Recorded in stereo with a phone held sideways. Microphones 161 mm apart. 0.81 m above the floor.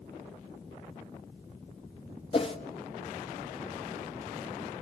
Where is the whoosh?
35° left (ahead or behind), 1.1 m.